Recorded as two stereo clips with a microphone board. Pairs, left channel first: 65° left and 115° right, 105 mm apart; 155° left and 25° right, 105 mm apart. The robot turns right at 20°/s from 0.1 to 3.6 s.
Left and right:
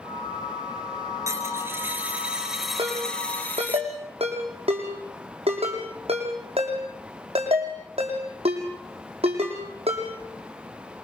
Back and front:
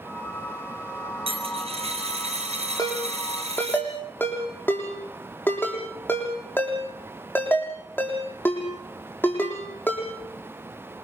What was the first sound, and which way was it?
A dropped coin, 50° right.